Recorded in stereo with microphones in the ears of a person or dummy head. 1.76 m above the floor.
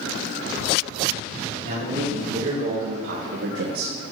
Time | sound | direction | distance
1.6 | a man speaking | 45° right (ahead or behind) | 3.5 m